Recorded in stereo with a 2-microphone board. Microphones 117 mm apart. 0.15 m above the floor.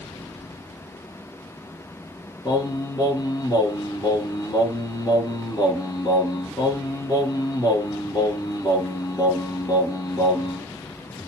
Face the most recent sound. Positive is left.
turn(degrees=35)  # may be behind; listen again after turning